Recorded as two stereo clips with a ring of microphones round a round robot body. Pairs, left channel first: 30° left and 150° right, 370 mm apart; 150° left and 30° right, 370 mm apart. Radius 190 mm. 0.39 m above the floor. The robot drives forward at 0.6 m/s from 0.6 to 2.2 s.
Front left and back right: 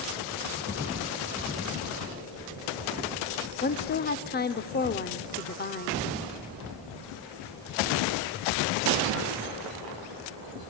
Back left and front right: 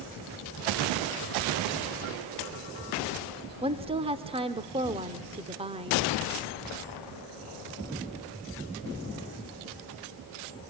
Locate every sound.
3.6 s a woman speaking: 25° left, 0.8 m